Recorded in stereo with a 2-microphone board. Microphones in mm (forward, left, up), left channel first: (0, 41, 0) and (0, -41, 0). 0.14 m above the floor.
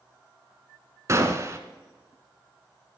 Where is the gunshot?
35° right (ahead or behind), 1.1 m.